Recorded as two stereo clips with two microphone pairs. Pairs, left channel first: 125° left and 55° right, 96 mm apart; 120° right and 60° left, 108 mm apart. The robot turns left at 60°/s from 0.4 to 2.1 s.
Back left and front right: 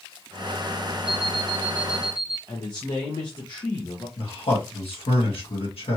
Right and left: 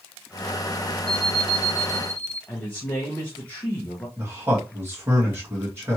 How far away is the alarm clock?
About 2 m.